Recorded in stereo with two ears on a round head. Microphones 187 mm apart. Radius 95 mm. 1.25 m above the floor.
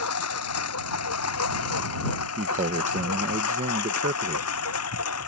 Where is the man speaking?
35° right (ahead or behind).